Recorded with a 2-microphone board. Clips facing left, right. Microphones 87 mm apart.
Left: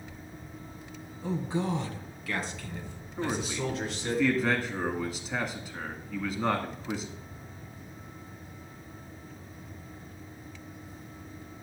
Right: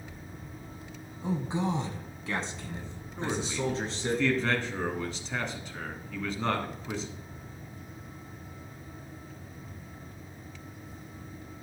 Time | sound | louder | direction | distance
1.2 | a man speaking | even | 15° right (ahead or behind) | 1.4 m
3.2 | a man speaking | even | 5° left (ahead or behind) | 1.6 m